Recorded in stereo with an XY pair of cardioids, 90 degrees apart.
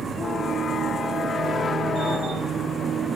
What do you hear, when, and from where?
0.0 s a machine running: 65° right